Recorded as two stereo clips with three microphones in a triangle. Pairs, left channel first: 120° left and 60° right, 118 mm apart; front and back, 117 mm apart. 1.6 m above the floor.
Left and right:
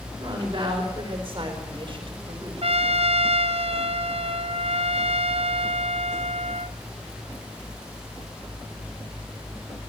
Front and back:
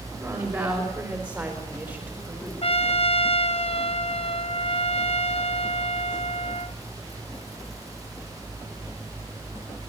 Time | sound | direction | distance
0.2 | a woman speaking | 120° right | 5.5 m
2.6 | a trumpet | 30° right | 1.0 m